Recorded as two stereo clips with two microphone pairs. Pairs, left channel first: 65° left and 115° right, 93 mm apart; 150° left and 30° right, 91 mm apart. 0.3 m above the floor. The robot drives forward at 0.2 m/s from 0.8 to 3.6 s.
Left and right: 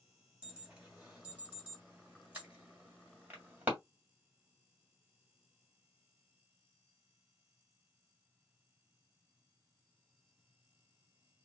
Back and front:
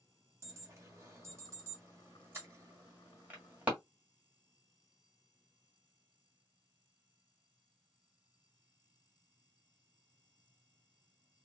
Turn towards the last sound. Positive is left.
turn(degrees=-75)